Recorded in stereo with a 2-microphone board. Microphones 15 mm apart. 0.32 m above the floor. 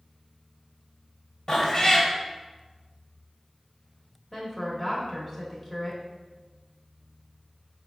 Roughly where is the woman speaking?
Centre.